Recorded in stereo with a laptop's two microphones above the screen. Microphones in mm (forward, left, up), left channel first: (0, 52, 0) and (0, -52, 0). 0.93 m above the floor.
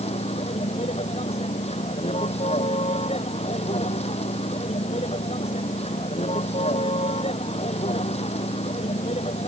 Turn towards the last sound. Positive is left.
turn(degrees=90)